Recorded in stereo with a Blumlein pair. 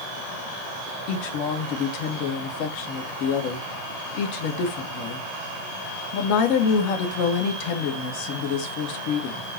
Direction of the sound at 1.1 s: 45° left.